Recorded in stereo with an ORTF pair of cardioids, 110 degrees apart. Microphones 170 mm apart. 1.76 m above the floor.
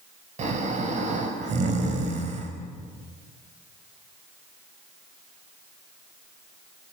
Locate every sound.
0.4 s snoring: 45° right, 5.5 m